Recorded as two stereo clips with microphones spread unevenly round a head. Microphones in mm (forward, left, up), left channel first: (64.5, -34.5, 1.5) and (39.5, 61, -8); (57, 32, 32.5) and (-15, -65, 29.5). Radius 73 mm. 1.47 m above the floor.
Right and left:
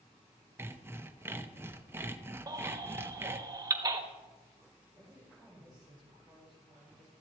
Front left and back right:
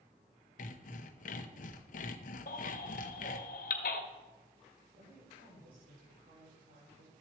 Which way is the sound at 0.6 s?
35° left.